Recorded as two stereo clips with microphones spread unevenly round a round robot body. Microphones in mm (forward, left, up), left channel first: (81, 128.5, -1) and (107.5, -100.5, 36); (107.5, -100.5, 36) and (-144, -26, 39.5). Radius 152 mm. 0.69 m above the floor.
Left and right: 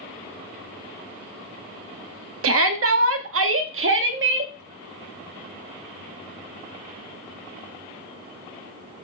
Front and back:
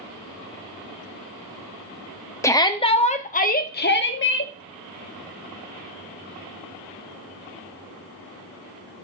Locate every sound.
2.4 s a shout: 90° right, 1.4 m; by 4.5 s 50° right, 1.8 m